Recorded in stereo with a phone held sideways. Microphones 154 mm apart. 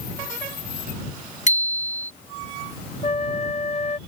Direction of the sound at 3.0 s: 40° left (ahead or behind).